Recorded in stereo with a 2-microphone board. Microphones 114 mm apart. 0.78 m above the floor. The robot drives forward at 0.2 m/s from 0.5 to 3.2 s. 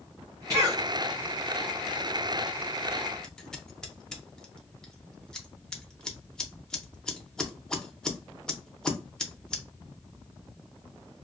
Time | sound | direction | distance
0.5 | a cough | 30° right (ahead or behind) | 0.7 m
3.2 | scissors | 5° left (ahead or behind) | 0.5 m